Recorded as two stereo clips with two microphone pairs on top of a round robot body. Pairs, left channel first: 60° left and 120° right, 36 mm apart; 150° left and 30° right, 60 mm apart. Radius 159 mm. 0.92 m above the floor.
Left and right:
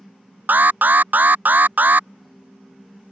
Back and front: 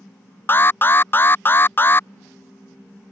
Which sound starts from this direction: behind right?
An alarm, at 0.5 s.